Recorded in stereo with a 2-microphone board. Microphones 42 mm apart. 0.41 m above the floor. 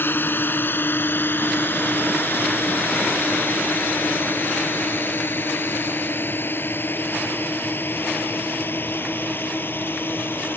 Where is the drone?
55° left (ahead or behind).